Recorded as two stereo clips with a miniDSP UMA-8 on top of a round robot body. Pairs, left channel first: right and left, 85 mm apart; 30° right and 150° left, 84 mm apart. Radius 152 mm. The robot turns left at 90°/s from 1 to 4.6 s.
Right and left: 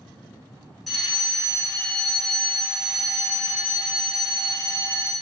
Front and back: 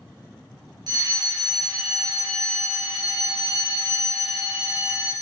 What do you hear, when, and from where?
0.9 s a fire alarm: straight behind, 4.5 m; by 5.1 s 145° right, 4.5 m